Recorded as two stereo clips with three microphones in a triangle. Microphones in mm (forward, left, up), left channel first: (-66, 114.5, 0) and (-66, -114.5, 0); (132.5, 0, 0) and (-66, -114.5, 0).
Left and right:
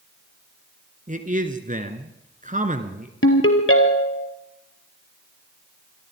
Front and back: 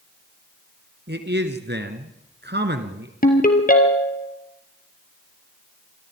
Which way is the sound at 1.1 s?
135° right.